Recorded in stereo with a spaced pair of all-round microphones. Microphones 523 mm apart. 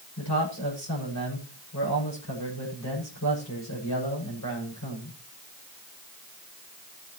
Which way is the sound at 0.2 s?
30° left (ahead or behind).